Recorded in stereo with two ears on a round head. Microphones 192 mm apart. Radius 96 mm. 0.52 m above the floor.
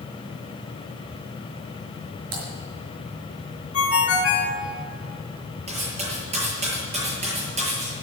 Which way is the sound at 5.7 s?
30° right (ahead or behind).